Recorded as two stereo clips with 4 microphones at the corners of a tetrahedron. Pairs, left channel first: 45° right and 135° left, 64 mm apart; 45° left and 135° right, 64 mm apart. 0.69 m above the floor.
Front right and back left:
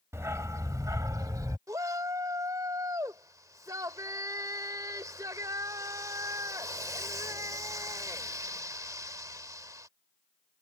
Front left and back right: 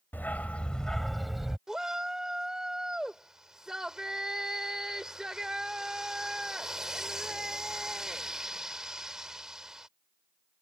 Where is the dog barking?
100° left; by 1.6 s 140° left.